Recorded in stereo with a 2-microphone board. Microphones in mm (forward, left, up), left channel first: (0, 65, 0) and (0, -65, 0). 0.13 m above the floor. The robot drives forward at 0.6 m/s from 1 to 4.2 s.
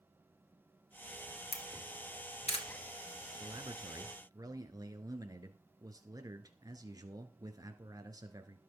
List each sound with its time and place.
1.5 s a camera shutter: 50° left (ahead or behind), 2.5 m
3.4 s a man speaking: 30° right (ahead or behind), 1.7 m; by 8.6 s 25° right (ahead or behind), 2.0 m